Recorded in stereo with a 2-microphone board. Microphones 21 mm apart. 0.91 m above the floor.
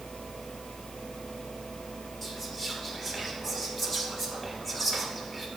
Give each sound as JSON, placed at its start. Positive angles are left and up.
{"t": 2.2, "sound": "whispering", "side_deg": 5, "distance_m": 2.5}